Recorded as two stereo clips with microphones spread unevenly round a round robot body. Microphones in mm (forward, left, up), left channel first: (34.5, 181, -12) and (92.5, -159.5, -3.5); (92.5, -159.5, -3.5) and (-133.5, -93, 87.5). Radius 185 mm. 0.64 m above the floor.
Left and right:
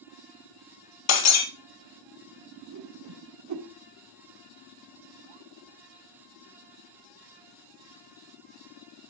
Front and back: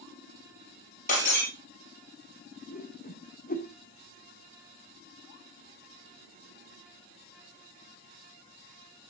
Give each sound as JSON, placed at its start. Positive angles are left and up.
{"t": 1.1, "sound": "breaking glass", "azimuth_deg": 55, "distance_m": 2.5}
{"t": 2.7, "sound": "a whoosh", "azimuth_deg": -45, "distance_m": 2.0}